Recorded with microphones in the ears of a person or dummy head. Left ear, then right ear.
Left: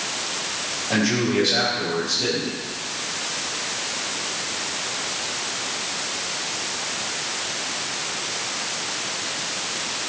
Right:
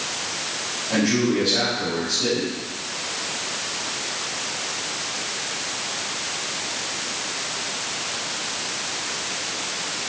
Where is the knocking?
I don't hear knocking.